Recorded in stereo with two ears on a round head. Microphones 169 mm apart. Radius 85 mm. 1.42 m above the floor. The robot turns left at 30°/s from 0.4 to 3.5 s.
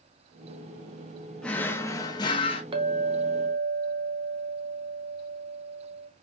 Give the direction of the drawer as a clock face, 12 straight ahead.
6 o'clock.